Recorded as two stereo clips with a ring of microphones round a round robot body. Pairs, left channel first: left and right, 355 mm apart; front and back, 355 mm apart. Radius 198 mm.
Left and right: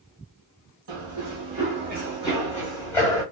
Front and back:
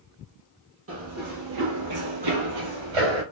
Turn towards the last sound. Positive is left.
turn(degrees=170)